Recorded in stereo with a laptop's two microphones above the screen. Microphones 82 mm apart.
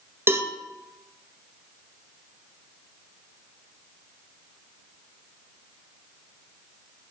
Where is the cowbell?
30° right (ahead or behind), 0.7 m.